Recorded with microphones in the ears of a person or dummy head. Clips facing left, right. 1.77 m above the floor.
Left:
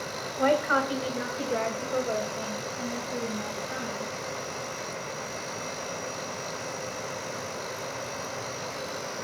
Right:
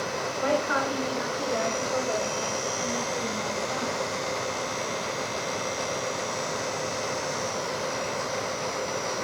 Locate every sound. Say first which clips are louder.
0.4 s a woman speaking: left 2 dB; 60° left (ahead or behind), 1.4 m; by 4.1 s 10° left (ahead or behind), 3.5 m